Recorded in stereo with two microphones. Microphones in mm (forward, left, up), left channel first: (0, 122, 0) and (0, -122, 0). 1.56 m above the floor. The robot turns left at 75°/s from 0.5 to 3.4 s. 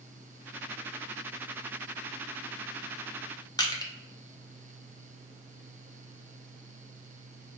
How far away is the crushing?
About 0.8 m.